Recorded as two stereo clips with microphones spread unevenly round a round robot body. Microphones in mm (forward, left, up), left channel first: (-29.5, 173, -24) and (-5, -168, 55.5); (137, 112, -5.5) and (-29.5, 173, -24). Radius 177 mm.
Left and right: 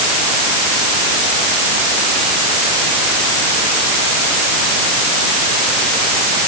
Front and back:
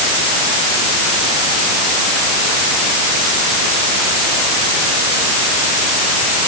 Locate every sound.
Only background noise.